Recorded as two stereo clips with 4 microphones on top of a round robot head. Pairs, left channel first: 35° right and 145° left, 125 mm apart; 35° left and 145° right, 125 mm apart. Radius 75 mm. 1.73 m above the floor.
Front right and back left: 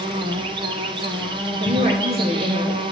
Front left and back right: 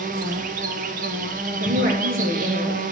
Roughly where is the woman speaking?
Behind.